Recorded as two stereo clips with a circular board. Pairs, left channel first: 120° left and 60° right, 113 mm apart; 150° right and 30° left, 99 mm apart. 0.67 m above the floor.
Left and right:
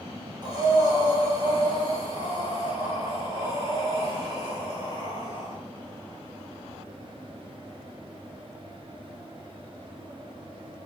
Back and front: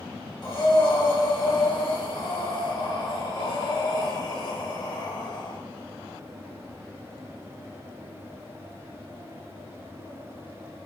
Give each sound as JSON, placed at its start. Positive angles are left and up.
{"t": 0.4, "sound": "breathing", "azimuth_deg": -110, "distance_m": 1.3}